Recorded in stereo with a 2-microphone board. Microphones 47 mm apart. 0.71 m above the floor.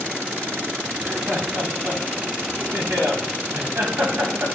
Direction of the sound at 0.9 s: 65° right (ahead or behind).